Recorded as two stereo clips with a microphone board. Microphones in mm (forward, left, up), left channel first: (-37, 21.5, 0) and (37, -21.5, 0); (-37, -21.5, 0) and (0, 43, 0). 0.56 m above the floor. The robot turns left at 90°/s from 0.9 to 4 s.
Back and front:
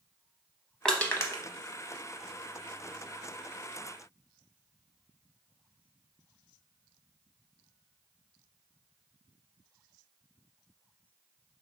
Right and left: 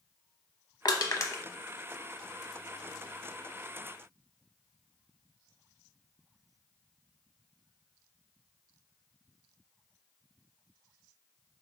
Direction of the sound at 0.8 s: 130° right.